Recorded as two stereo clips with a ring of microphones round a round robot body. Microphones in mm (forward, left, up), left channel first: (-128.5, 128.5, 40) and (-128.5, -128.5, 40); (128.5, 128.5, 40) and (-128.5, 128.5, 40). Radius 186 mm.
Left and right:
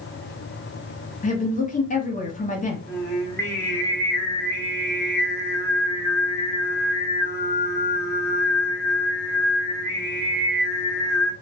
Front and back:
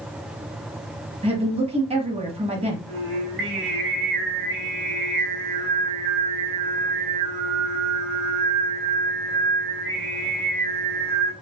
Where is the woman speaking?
130° left, 1.2 m.